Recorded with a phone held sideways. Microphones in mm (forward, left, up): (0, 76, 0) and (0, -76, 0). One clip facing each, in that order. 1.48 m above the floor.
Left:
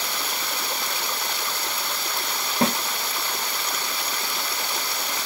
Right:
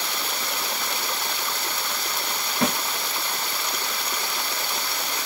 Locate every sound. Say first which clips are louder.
2.6 s a snare drum: left 2 dB; 35° left (ahead or behind), 2.0 m